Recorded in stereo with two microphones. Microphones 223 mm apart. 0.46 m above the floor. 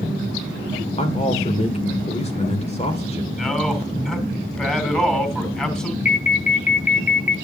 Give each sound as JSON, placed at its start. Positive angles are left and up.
{"t": 1.0, "sound": "a man speaking", "side_deg": 30, "distance_m": 1.8}
{"t": 3.3, "sound": "a man speaking", "side_deg": 5, "distance_m": 3.0}
{"t": 6.0, "sound": "an alarm", "side_deg": 35, "distance_m": 1.0}